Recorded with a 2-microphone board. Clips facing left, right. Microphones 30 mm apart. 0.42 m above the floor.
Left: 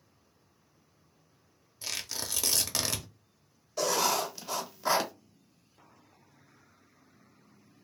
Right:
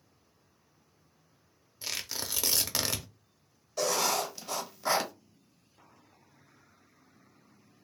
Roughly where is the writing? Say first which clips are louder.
Left 1 dB; centre.